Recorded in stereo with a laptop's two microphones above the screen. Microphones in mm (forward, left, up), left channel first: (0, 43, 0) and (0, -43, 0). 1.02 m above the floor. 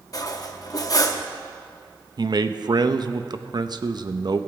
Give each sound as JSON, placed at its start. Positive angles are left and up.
{"t": 0.1, "sound": "cutlery clinking", "side_deg": 45, "distance_m": 0.7}
{"t": 2.2, "sound": "a man speaking", "side_deg": -55, "distance_m": 0.7}